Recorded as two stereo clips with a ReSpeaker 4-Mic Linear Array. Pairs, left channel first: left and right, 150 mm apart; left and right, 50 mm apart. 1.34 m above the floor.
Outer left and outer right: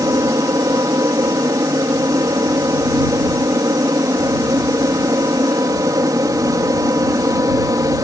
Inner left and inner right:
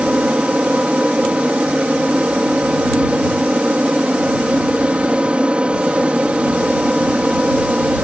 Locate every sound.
0.0 s an aircraft: 25° right (ahead or behind)